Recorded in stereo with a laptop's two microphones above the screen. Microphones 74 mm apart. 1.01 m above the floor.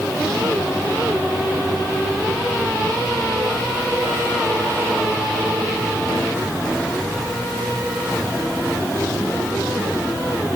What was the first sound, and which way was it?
Only background noise.